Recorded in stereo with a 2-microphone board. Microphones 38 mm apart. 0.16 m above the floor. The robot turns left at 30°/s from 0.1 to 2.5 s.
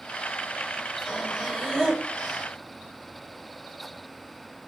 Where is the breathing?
30° left, 6 m; by 2.5 s 15° right, 6 m.